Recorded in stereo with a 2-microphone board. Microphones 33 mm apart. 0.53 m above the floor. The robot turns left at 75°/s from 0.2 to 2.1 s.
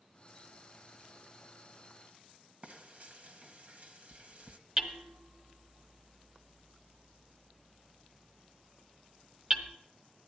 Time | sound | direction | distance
2.6 | frying | 40° right (ahead or behind) | 1.1 m
4.8 | hammering | 15° right (ahead or behind) | 1.0 m